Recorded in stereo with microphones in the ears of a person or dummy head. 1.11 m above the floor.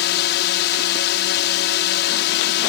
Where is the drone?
55° left (ahead or behind).